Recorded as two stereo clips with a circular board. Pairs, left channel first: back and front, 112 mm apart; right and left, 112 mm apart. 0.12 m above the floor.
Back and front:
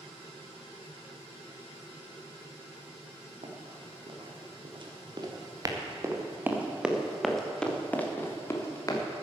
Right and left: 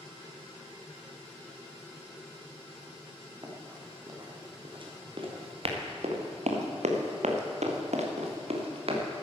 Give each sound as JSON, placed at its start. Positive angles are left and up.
{"t": 3.4, "sound": "running footsteps", "azimuth_deg": 30, "distance_m": 4.0}